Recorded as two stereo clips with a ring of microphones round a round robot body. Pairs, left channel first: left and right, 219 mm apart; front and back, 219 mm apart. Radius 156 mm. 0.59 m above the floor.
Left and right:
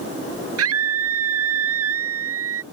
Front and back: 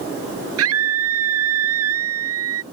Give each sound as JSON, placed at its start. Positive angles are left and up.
{"t": 0.6, "sound": "a scream", "azimuth_deg": -135}